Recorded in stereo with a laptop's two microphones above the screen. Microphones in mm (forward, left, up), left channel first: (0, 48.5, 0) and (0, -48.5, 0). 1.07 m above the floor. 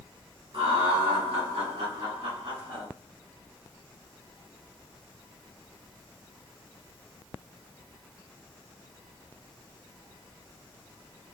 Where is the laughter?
65° right (ahead or behind), 1.3 m; by 2.9 s 35° right (ahead or behind), 0.9 m.